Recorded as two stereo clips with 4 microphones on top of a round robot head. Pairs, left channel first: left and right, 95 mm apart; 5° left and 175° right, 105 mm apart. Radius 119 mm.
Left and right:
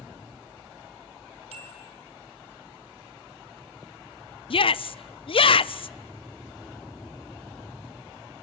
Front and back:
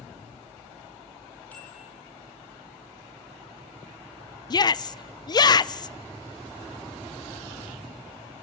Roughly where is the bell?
Right.